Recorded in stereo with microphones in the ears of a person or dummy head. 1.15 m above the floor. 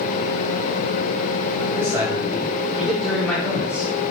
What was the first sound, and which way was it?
A man speaking, 15° right (ahead or behind).